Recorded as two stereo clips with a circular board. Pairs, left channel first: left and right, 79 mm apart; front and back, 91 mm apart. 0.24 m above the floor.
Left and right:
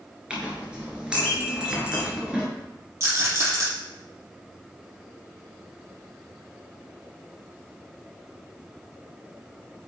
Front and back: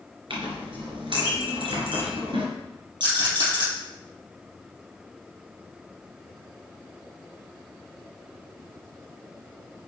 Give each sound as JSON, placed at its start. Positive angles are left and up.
{"t": 0.3, "sound": "a clink", "azimuth_deg": -170, "distance_m": 3.0}
{"t": 3.0, "sound": "a rattle", "azimuth_deg": -145, "distance_m": 4.5}